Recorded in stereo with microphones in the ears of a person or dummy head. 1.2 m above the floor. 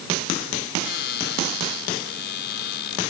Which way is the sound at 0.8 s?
65° left (ahead or behind).